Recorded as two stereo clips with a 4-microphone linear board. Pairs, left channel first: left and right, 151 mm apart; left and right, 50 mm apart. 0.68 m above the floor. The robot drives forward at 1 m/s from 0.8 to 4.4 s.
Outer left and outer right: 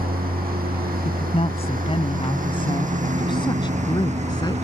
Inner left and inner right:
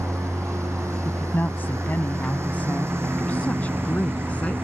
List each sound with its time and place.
0.0 s a lawn mower: 75° right (ahead or behind); by 4.7 s 45° right (ahead or behind)
1.1 s a woman speaking: 45° left (ahead or behind); by 4.5 s 30° left (ahead or behind)